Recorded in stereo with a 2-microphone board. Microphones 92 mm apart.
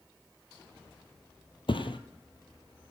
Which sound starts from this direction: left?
A thud, at 1.7 s.